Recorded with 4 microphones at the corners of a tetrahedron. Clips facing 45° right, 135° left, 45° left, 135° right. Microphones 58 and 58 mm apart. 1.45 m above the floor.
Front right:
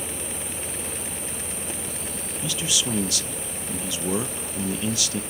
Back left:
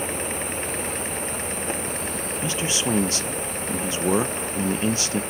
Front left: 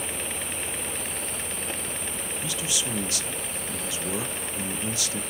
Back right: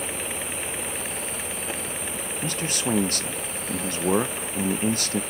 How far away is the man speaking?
About 0.7 m.